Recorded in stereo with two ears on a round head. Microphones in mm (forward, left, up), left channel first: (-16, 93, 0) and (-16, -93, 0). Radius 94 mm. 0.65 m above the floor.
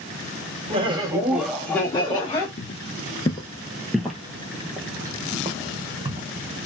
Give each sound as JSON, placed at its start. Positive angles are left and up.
{"t": 0.7, "sound": "laughter", "side_deg": -30, "distance_m": 0.9}
{"t": 2.6, "sound": "footsteps", "side_deg": 35, "distance_m": 0.8}